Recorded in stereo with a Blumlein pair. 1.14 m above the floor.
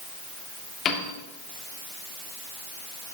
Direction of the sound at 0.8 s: 25° left.